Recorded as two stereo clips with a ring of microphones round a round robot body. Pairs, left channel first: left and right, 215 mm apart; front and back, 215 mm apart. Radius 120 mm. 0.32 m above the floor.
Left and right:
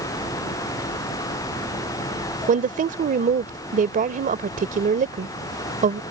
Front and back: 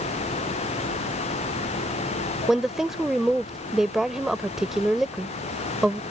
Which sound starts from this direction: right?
A woman speaking, at 2.5 s.